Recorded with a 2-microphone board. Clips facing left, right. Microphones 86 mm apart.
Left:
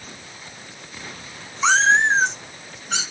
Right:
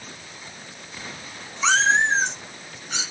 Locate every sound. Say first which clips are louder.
1.6 s a cat meowing: left 3 dB; 20° left (ahead or behind), 1.3 m; by 3.0 s 75° left (ahead or behind), 1.7 m